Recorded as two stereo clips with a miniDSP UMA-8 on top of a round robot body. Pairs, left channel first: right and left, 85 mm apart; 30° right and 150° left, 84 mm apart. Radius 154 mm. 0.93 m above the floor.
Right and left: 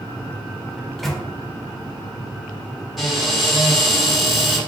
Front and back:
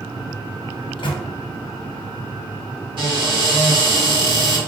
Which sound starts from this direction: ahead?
A microwave, at 0.8 s.